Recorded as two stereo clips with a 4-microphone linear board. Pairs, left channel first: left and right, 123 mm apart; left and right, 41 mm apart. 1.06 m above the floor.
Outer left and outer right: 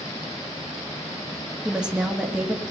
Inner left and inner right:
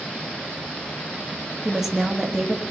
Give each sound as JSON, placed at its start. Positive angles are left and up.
{"t": 1.6, "sound": "a woman speaking", "side_deg": -5, "distance_m": 1.5}